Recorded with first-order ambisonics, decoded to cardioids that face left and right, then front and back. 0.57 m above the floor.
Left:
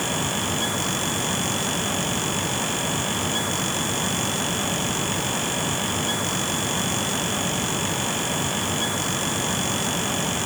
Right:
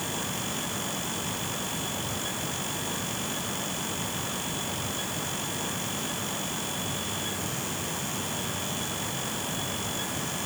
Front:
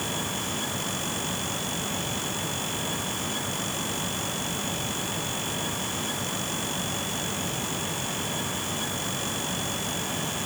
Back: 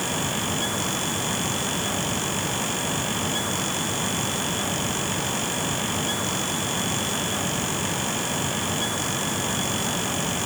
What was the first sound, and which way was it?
Only background noise.